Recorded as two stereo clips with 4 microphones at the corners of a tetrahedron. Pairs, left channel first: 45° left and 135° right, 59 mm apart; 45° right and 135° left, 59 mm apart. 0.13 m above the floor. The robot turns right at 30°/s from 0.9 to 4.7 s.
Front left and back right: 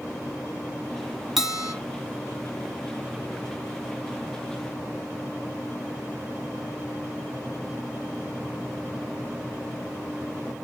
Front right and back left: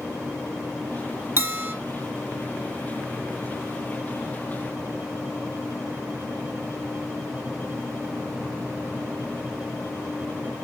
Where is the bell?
140° left, 1.8 m; by 1.7 s 155° left, 1.8 m.